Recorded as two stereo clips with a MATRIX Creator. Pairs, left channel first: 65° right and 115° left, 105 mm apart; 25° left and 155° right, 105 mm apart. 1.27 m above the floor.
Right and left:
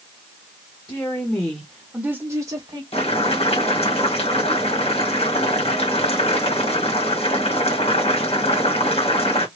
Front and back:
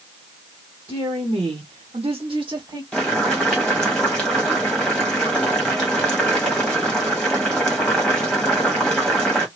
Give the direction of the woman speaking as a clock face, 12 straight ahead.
4 o'clock.